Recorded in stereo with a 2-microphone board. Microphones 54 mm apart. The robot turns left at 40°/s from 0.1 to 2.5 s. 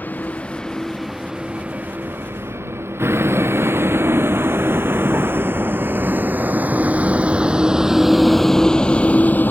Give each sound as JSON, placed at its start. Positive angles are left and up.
{"t": 0.0, "sound": "a vehicle", "side_deg": 35}